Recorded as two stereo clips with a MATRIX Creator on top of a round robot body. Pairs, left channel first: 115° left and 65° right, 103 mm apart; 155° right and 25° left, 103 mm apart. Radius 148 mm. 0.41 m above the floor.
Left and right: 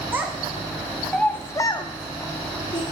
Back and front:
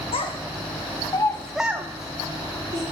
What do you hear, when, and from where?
0.1 s a child speaking: 140° right, 1.1 m; by 2.8 s 60° left, 1.2 m